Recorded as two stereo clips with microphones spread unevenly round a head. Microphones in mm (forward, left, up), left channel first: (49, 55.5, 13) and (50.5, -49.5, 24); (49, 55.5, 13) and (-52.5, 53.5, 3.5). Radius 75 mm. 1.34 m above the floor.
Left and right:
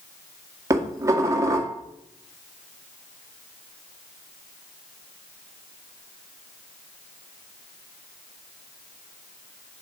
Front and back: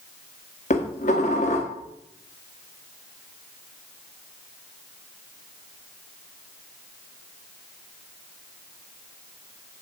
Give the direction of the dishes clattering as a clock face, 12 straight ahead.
1 o'clock.